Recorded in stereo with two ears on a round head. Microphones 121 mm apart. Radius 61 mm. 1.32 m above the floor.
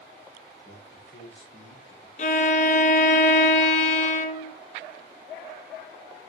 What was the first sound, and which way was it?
A man speaking, 65° left (ahead or behind).